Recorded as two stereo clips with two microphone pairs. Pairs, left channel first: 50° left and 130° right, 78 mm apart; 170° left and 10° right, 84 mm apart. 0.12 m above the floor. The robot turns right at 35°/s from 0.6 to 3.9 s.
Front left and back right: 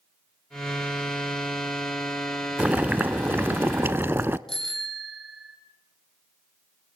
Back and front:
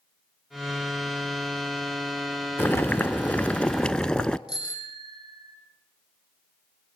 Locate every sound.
2.6 s boiling: 175° right, 0.6 m; by 4.4 s 125° right, 0.6 m
4.5 s a bicycle bell: 135° left, 4 m